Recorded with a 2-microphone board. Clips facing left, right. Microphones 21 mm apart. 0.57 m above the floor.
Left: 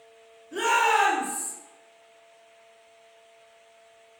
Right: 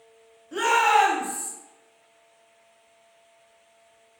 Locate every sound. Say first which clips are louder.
0.5 s a shout: right 2 dB; 40° right (ahead or behind), 0.8 m; by 1.5 s 55° right (ahead or behind), 1.0 m